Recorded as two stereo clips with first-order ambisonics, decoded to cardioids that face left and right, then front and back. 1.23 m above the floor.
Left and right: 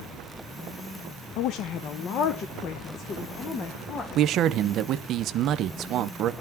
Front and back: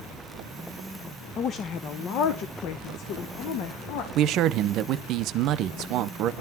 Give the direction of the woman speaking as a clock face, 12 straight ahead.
10 o'clock.